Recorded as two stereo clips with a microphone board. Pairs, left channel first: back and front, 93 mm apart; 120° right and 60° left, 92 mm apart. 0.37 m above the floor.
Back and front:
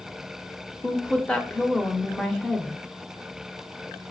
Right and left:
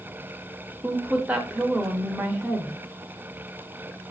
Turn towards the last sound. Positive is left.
turn(degrees=110)